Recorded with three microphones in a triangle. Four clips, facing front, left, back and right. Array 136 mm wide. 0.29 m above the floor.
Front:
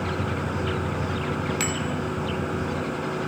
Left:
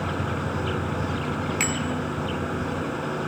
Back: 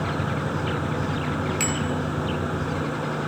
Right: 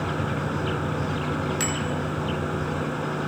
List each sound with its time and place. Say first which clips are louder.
1.6 s a bicycle bell: even, back 1 dB; 50° left, 2 m